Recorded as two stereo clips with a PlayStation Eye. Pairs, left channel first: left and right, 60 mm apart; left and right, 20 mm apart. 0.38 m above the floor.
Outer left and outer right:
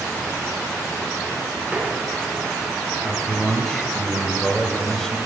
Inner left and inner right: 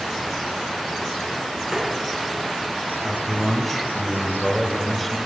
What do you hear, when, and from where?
1.7 s tapping: 25° right (ahead or behind), 3 m
3.0 s a man speaking: 5° left (ahead or behind), 1.6 m